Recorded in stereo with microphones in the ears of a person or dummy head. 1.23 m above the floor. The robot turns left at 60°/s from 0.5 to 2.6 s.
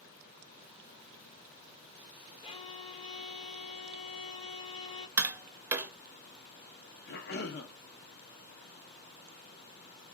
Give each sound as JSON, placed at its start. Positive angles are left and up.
{"t": 2.4, "sound": "a violin", "side_deg": 25, "distance_m": 0.6}
{"t": 5.2, "sound": "tapping", "side_deg": -15, "distance_m": 0.5}
{"t": 7.1, "sound": "a cough", "side_deg": 50, "distance_m": 0.7}